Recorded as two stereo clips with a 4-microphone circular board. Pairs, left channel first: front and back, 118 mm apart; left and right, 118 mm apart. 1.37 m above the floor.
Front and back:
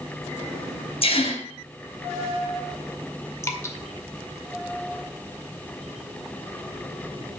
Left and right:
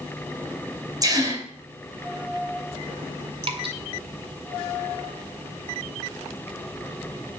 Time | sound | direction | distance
1.0 | a gasp | 35° right | 4 m
3.4 | dripping | 65° right | 1.9 m